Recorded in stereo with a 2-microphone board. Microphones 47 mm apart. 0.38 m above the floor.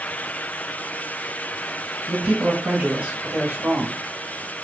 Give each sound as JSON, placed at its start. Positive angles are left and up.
{"t": 2.1, "sound": "a man speaking", "side_deg": -30, "distance_m": 1.4}